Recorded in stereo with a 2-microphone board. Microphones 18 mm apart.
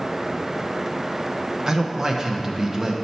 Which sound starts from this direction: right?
A man speaking, at 1.7 s.